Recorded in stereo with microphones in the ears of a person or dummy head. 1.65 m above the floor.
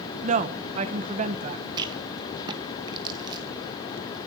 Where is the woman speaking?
40° right (ahead or behind), 1.5 m.